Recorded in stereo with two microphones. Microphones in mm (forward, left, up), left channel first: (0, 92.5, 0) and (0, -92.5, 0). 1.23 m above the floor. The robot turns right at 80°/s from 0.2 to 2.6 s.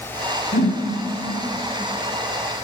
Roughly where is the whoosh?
Left.